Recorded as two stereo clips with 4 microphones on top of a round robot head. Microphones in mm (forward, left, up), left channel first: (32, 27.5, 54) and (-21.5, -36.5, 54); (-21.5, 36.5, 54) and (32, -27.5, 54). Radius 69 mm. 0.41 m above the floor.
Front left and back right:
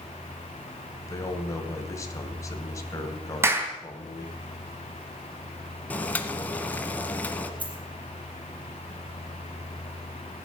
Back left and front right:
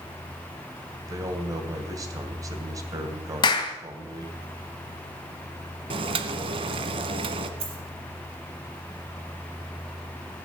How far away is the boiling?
About 1.2 m.